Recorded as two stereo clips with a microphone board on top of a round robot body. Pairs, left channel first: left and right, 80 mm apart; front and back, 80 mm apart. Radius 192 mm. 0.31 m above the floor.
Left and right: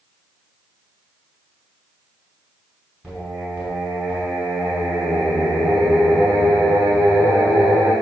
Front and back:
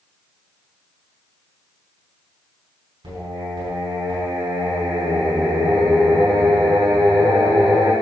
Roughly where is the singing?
Behind.